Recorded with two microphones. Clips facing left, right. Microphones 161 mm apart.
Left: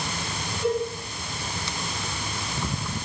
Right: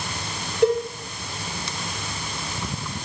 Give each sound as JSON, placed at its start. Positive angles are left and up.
{"t": 0.6, "sound": "a cowbell", "side_deg": -70, "distance_m": 7.0}